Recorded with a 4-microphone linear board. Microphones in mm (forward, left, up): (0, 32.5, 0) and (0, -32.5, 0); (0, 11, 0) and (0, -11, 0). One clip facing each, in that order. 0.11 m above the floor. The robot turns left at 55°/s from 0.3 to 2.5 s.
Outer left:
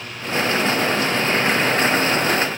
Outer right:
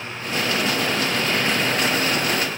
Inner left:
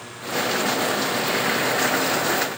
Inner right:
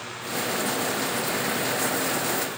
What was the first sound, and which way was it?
Only background noise.